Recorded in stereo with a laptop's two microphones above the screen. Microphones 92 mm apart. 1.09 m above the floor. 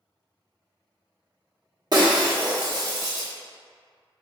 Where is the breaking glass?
45° right (ahead or behind), 1.1 m.